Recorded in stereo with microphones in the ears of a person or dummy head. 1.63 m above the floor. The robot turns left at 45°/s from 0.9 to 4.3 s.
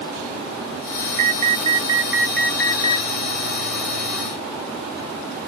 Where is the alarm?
125° right; by 3.1 s 150° left.